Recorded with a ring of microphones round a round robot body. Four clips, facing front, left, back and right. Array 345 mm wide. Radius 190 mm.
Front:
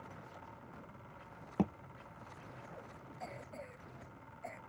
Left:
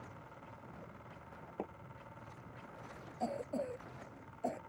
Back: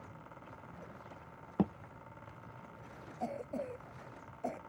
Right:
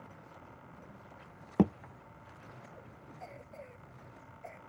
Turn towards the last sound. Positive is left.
turn(degrees=130)